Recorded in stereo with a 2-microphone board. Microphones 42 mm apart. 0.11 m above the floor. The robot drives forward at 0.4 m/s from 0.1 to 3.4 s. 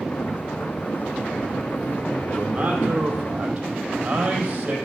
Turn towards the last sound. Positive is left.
turn(degrees=-30)  # may be behind; listen again after turning